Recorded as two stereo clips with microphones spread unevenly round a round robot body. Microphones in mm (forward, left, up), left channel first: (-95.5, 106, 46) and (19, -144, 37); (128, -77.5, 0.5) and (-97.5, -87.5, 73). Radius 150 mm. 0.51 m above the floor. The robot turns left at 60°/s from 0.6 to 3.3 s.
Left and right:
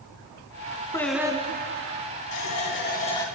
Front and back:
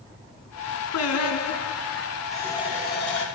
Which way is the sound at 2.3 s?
90° left.